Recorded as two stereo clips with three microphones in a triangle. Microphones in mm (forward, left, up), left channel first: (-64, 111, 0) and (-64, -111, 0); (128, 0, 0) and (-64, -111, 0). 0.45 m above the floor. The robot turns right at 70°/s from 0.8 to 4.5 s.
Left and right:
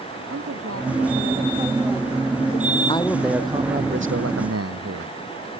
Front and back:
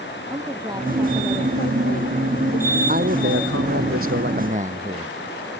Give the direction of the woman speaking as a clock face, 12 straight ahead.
3 o'clock.